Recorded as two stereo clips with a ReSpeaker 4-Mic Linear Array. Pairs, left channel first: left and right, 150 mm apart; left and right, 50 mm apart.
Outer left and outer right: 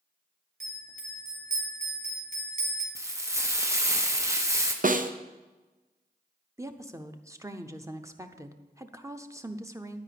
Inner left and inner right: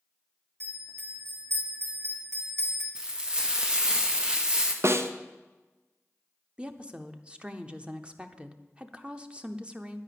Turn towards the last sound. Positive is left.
turn(degrees=-20)  # may be behind; listen again after turning